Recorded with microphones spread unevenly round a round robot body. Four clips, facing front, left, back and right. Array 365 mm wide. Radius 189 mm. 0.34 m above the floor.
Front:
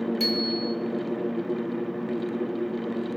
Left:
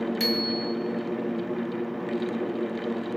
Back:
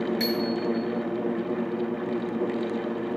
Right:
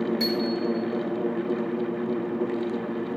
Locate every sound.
0.2 s a bicycle bell: 110° left, 4.5 m